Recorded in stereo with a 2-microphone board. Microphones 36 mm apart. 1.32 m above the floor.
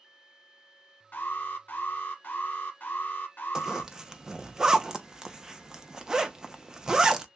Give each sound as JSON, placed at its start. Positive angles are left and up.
{"t": 1.1, "sound": "an alarm", "side_deg": 55, "distance_m": 1.8}
{"t": 3.5, "sound": "a zipper", "side_deg": -20, "distance_m": 0.7}